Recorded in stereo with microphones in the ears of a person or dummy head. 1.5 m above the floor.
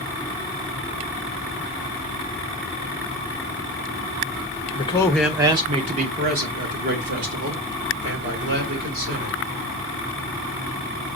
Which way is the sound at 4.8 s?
30° left (ahead or behind).